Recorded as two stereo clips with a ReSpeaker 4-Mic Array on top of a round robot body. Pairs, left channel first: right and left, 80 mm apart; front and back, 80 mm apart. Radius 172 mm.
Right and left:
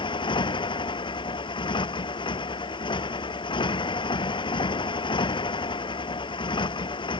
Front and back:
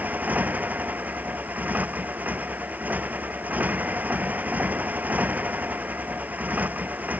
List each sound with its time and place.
0.0 s a motorcycle: 110° right